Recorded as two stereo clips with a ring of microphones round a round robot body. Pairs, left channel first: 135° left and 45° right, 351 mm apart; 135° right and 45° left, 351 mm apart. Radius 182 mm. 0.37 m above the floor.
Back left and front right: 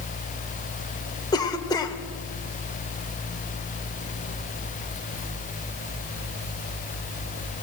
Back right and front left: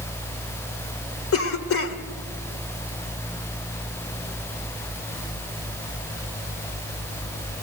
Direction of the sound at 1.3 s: 150° right.